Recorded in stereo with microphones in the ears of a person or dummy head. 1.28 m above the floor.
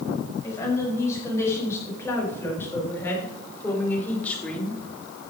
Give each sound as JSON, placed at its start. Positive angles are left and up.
{"t": 0.4, "sound": "a woman speaking", "side_deg": 15, "distance_m": 6.5}